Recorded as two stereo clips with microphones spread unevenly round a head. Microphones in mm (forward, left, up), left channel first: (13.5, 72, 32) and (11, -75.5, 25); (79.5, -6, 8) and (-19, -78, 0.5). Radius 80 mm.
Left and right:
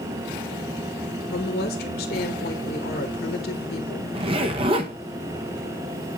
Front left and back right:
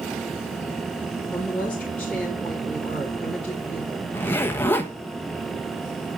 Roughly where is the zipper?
Ahead right.